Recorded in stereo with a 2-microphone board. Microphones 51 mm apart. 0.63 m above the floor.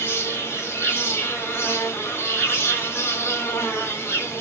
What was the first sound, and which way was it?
An insect, 55° left (ahead or behind).